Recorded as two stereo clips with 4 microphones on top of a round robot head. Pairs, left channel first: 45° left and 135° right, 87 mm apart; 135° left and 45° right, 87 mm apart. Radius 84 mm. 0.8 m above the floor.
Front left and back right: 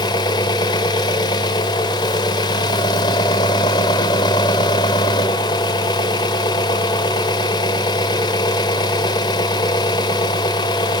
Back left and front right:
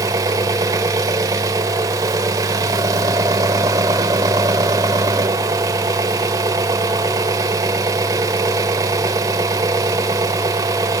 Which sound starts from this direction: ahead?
An engine running, at 0.0 s.